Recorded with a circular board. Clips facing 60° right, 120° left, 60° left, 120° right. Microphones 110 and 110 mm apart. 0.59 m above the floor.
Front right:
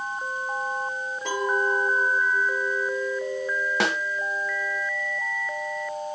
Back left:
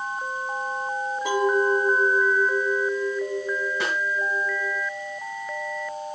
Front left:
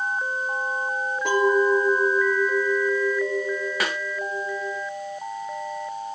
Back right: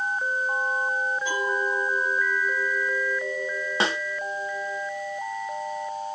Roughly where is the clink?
Ahead left.